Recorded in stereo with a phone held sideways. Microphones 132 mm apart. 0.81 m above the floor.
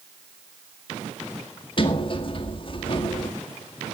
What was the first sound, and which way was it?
A sliding door, 40° left (ahead or behind).